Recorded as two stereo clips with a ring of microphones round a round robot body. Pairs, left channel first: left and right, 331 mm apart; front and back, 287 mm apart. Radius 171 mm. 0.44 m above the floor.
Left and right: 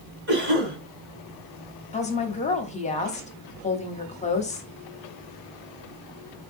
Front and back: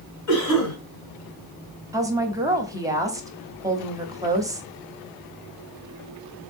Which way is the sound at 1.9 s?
120° left.